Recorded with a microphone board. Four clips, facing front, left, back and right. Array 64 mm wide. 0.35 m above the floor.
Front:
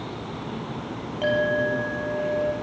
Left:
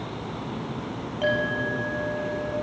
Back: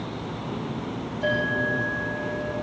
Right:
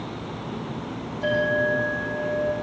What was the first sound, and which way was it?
A clink, 45° left.